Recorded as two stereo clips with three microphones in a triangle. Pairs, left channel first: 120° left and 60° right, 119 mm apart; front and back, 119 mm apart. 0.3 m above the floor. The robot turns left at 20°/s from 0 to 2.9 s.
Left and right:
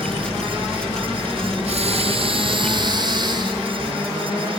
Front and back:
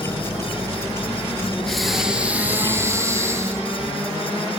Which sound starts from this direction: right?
Breathing, at 1.7 s.